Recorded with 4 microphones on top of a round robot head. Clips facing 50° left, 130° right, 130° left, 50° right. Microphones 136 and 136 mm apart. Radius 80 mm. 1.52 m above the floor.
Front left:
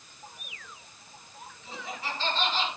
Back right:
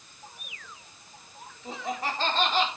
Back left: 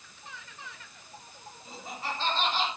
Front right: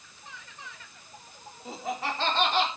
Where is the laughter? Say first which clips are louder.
Back right 6 dB, front right 6 dB; 80° right, 3.5 m; by 2.7 s 85° right, 4 m.